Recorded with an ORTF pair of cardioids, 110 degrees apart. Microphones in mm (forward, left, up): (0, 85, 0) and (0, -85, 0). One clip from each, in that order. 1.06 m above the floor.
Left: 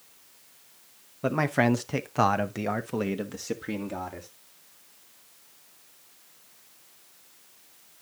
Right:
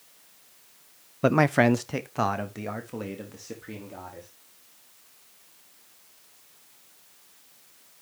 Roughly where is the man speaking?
Ahead right.